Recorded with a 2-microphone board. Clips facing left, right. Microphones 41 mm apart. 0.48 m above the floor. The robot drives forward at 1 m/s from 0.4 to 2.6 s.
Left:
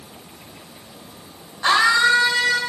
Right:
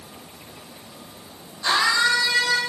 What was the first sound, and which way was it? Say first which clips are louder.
A scream: left 4 dB; 40° left (ahead or behind).